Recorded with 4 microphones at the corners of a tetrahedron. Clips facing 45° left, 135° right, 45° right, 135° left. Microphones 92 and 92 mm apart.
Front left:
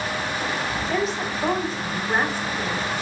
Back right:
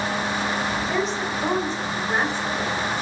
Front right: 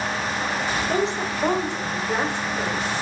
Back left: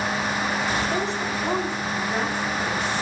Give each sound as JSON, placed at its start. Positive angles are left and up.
{"t": 0.9, "sound": "a woman speaking", "azimuth_deg": -40, "distance_m": 3.0}